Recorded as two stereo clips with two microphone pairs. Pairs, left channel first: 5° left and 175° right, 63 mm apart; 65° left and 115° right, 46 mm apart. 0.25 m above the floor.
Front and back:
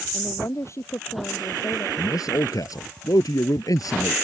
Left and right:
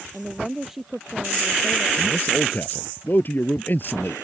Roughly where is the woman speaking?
Ahead right.